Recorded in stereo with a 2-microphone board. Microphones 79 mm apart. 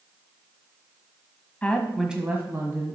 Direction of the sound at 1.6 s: 20° left (ahead or behind).